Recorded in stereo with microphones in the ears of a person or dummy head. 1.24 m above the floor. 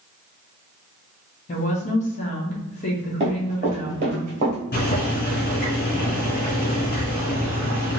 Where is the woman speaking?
40° left (ahead or behind), 0.9 m.